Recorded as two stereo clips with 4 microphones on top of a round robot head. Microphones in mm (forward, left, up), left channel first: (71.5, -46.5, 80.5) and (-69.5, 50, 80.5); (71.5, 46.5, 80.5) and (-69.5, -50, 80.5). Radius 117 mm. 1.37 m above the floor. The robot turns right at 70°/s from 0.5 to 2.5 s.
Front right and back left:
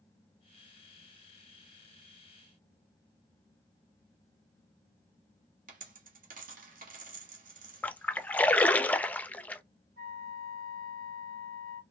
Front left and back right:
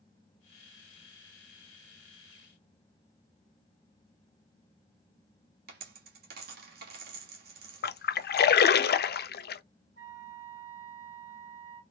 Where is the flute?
Straight behind, 2 m.